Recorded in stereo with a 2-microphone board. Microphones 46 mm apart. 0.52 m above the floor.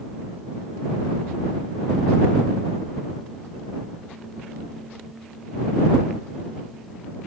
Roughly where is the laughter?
No laughter in this recording.